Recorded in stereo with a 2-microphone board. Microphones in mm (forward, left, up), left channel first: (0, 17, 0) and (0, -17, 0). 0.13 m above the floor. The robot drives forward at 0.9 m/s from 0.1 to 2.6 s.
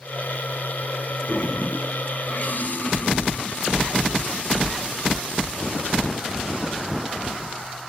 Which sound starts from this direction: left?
A toilet flushing, at 1.3 s.